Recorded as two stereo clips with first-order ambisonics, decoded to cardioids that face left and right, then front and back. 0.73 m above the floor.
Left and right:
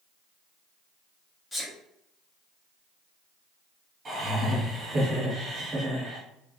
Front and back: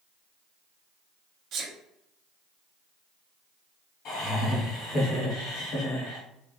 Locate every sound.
1.5 s a sneeze: 160° left, 0.8 m
4.0 s laughter: 15° right, 1.6 m